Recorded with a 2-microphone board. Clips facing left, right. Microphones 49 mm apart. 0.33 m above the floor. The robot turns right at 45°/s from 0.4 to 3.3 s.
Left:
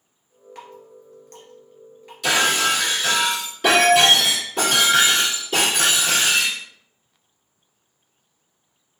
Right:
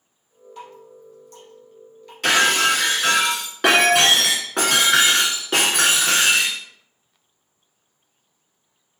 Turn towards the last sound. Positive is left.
turn(degrees=-85)